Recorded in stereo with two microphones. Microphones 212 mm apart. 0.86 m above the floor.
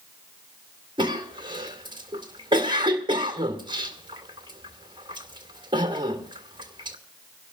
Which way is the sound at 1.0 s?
20° right (ahead or behind).